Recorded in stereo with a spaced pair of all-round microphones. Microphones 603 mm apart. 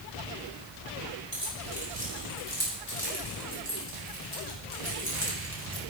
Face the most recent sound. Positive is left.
turn(degrees=25)  # may be behind; listen again after turning